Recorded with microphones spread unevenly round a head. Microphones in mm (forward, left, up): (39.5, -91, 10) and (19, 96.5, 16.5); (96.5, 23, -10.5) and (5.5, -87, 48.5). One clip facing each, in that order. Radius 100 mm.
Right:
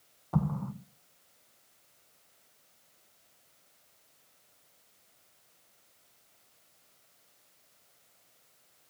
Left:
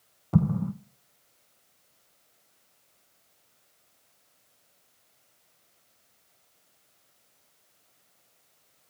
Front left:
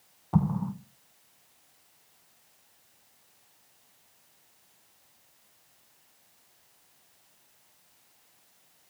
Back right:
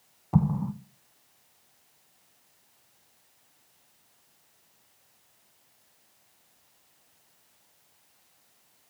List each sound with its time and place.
0.3 s an explosion: 120° left, 0.8 m